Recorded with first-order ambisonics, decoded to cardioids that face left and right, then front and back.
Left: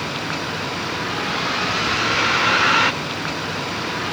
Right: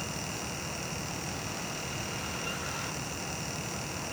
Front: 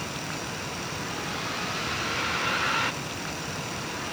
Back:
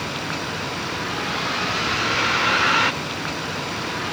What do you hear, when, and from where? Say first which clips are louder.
0.0 s a vehicle: left 12 dB, back 7 dB; 115° left